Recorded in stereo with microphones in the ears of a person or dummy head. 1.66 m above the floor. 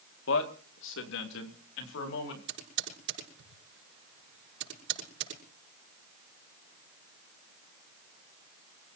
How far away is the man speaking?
About 2 m.